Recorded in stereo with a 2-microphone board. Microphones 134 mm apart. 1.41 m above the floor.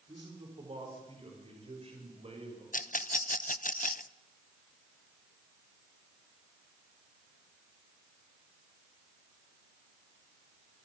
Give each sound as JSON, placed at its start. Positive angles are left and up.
{"t": 0.1, "sound": "a man speaking", "side_deg": -45, "distance_m": 4.0}
{"t": 2.7, "sound": "a rattle", "side_deg": 85, "distance_m": 0.5}